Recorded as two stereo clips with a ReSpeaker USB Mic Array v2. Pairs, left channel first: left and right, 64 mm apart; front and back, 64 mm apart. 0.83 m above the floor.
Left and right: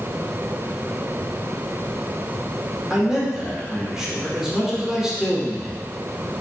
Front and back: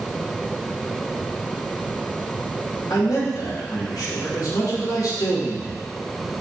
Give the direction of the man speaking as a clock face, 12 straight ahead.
12 o'clock.